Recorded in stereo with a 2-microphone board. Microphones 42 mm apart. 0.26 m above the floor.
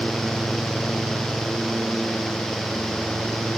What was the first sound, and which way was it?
Only background noise.